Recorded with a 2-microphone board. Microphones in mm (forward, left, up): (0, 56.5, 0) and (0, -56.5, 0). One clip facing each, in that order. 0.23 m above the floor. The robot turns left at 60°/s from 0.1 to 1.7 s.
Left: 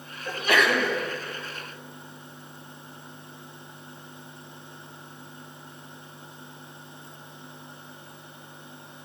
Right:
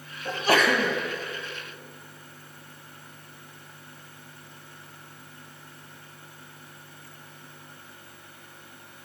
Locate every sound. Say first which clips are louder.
0.2 s a sneeze: right 1 dB; 45° right, 1.4 m; by 1.0 s 90° right, 1.4 m